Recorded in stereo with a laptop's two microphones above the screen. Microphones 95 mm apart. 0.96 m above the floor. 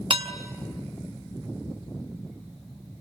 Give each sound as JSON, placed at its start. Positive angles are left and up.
{"t": 0.1, "sound": "dishes clattering", "side_deg": -70, "distance_m": 1.3}